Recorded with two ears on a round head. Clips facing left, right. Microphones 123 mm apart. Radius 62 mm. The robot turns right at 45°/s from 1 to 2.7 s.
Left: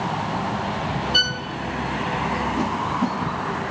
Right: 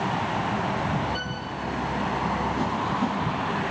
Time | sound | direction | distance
1.1 | a violin | 75° left (ahead or behind) | 0.6 m
2.6 | a whoosh | 20° left (ahead or behind) | 1.2 m